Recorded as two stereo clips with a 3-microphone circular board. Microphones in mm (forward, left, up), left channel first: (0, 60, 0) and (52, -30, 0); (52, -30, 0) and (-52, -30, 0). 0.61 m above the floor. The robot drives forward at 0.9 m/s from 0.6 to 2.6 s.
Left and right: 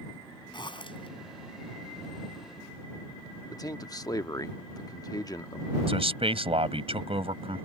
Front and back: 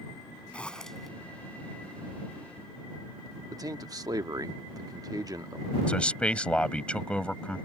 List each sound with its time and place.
0.5 s a zipper: 80° left; by 1.1 s 90° left
3.5 s a man speaking: 150° left
5.9 s a man speaking: 80° right